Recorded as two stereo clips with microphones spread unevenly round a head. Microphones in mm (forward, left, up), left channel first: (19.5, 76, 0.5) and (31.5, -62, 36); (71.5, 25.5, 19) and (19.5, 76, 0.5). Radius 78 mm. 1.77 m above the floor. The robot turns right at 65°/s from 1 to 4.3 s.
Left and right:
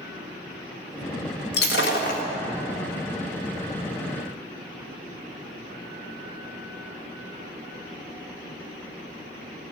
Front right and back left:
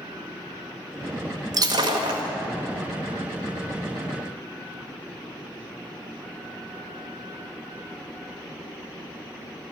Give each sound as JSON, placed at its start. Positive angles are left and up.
{"t": 1.5, "sound": "breaking glass", "azimuth_deg": 105, "distance_m": 1.5}